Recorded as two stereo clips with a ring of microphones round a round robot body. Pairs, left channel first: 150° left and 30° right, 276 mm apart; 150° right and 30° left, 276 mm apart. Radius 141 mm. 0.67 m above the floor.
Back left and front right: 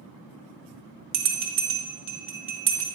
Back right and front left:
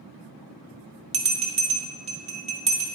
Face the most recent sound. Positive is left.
turn(degrees=-25)